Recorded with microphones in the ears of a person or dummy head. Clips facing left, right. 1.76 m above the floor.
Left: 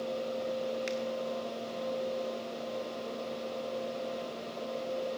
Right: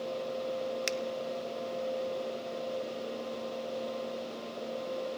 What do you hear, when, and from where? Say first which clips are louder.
0.9 s a finger snap: even; 60° right (ahead or behind), 0.7 m